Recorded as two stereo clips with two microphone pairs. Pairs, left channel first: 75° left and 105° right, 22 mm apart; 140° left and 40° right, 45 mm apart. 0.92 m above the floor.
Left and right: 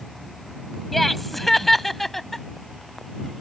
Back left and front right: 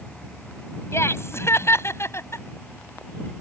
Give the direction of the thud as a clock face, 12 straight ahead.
I don't hear a thud.